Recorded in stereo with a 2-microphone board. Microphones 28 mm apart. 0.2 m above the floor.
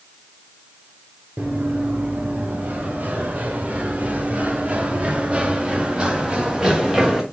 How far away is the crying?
I don't hear crying.